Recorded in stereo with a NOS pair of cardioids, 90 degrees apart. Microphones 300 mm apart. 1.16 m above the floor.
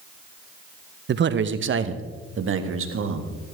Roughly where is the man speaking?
Ahead right.